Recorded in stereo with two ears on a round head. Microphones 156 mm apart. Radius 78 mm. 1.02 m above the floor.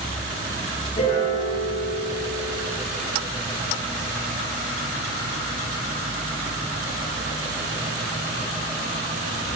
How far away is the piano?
About 7 m.